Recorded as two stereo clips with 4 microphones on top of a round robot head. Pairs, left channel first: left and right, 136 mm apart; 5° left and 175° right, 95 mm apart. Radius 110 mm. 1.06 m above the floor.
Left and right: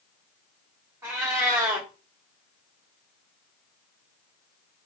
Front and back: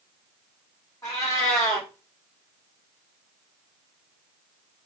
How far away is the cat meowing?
About 0.7 m.